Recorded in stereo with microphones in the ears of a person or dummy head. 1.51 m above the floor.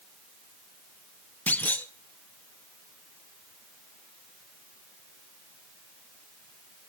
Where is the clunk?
10° left (ahead or behind), 0.6 m.